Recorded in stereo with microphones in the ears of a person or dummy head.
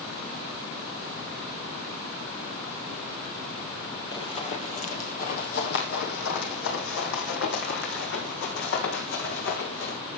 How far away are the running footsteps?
About 2 m.